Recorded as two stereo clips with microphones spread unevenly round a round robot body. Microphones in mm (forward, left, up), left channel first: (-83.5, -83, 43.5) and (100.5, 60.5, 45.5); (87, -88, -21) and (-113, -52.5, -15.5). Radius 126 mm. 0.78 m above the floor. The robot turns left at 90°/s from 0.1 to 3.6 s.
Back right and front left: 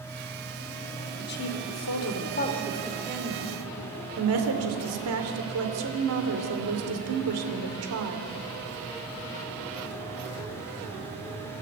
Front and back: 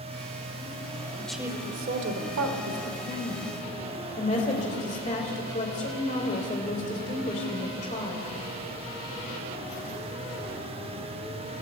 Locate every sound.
1.2 s a woman speaking: 90° right, 3 m; by 8.3 s 55° left, 3 m